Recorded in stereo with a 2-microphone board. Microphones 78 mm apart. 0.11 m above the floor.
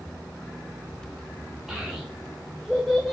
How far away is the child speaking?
About 4 m.